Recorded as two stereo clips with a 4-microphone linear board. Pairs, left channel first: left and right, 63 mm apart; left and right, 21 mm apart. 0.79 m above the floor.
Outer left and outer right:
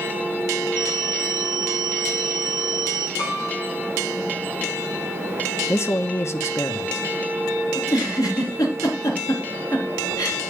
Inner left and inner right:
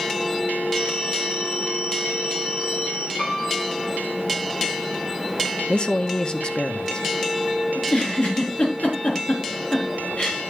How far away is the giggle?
About 4 m.